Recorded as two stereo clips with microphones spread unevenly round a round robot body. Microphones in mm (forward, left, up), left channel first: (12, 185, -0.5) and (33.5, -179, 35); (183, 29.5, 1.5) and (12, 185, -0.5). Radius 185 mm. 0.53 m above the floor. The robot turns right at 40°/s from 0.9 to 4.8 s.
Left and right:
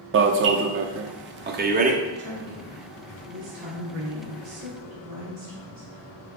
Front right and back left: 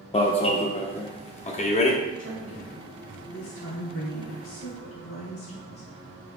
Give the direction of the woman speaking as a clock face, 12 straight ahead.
5 o'clock.